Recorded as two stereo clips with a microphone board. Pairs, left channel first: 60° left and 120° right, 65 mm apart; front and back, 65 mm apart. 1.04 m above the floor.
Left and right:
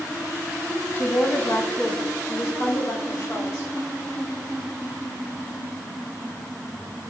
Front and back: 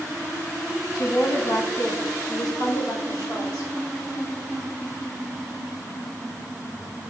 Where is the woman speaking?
Straight ahead, 1.8 m; by 3.7 s 20° left, 4 m.